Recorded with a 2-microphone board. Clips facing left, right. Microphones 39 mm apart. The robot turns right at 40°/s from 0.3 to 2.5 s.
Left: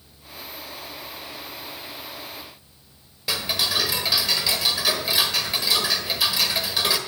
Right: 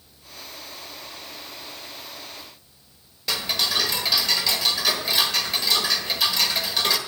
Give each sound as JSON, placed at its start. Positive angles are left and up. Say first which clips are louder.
{"t": 3.3, "sound": "ticking", "louder": "even", "side_deg": 10, "distance_m": 1.3}